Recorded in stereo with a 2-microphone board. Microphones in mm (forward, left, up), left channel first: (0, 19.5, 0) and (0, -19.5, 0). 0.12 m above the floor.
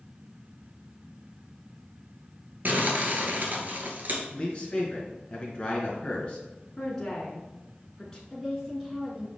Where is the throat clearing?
I don't hear throat clearing.